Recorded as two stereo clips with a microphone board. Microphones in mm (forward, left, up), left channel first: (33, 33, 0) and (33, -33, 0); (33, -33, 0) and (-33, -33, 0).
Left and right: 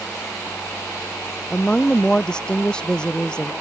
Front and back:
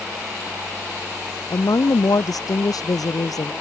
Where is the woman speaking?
10° left.